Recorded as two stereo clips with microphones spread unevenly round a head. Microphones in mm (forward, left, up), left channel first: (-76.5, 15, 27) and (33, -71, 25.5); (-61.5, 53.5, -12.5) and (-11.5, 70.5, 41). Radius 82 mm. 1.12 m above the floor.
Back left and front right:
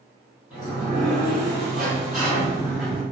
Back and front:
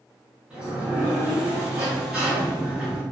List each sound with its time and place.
0.5 s a sliding door: 50° left, 0.9 m